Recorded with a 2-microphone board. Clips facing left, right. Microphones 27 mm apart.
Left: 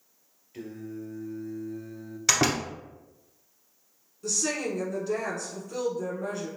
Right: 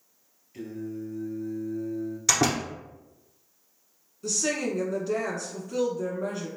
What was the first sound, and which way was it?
Singing, 5° left (ahead or behind).